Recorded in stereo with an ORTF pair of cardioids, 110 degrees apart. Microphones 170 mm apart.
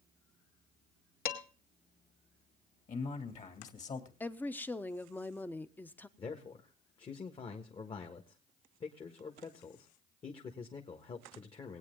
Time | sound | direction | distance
1.2 | dishes clattering | 60° left | 2.5 m
2.9 | a man speaking | 45° left | 3 m
4.2 | a woman speaking | 10° left | 0.9 m
6.2 | a man speaking | 35° left | 1.7 m